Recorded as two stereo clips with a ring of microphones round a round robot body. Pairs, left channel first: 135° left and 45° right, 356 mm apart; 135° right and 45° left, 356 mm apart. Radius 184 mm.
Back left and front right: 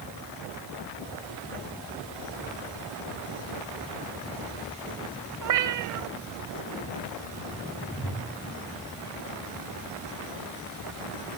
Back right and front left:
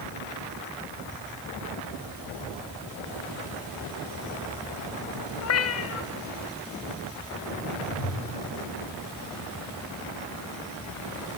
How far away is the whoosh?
About 8.5 m.